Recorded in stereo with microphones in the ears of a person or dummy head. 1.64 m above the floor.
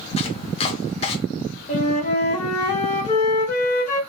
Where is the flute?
35° left (ahead or behind), 1.3 m.